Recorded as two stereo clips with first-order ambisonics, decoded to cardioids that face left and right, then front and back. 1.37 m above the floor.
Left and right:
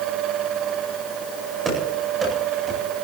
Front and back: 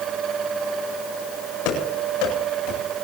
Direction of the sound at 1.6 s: 15° right.